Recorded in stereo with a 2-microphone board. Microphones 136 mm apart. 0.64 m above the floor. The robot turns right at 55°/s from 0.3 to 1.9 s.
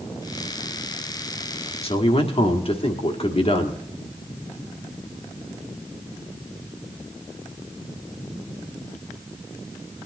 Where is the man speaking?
45° left (ahead or behind), 1.5 m.